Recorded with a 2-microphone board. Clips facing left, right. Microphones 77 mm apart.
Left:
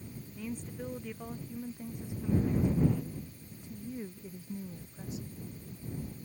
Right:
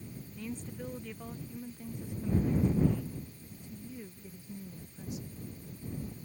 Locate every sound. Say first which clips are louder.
0.4 s a woman speaking: left 1 dB; 5° left (ahead or behind); by 5.3 s 30° left (ahead or behind)